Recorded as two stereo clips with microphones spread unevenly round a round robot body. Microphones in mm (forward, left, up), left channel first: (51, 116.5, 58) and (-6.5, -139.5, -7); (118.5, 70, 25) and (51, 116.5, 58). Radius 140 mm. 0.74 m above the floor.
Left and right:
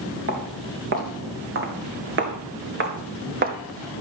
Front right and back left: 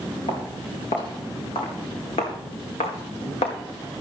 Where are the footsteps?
55° right, 4 m; by 3.6 s 35° right, 1.3 m.